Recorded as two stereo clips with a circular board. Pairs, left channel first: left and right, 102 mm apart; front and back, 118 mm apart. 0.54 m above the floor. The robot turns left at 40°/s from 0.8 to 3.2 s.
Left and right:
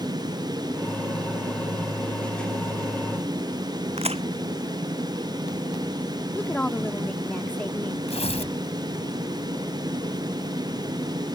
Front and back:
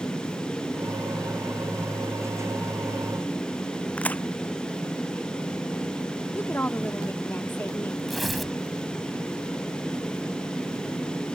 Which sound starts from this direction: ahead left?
A woman speaking, at 6.3 s.